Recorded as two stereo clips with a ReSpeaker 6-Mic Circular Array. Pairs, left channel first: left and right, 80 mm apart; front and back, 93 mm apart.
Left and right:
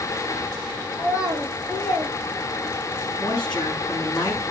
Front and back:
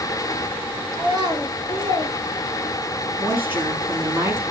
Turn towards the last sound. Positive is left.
turn(degrees=115)